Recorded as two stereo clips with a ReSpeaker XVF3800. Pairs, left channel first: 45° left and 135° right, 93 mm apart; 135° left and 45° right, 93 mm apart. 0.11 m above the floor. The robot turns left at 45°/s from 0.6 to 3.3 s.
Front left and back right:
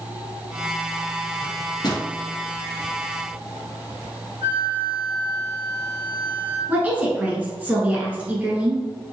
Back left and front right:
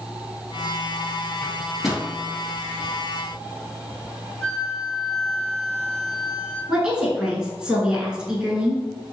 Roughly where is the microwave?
Ahead left.